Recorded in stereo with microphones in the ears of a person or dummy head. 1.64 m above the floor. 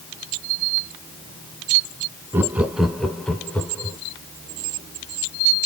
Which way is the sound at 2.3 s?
10° right (ahead or behind).